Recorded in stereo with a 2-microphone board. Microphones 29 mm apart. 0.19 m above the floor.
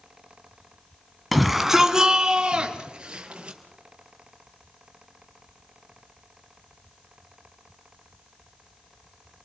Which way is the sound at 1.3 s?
Centre (ahead or behind).